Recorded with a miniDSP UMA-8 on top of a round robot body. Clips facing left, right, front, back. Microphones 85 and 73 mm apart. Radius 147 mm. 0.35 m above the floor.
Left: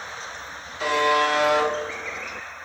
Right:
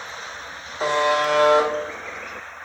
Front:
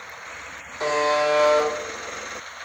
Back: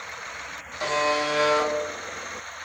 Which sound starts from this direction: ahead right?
A buzzer, at 0.8 s.